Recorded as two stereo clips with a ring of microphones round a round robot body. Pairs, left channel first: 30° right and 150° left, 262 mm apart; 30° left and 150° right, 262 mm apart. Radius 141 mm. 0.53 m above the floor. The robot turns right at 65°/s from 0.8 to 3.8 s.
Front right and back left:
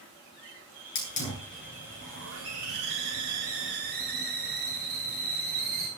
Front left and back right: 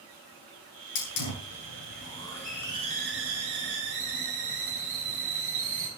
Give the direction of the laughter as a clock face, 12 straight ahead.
I don't hear laughter.